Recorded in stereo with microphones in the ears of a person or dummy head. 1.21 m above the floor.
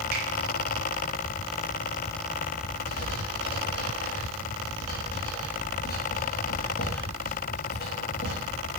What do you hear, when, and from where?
0.1 s a finger snap: 45° right (ahead or behind), 0.7 m
2.9 s writing: 45° left (ahead or behind), 1.1 m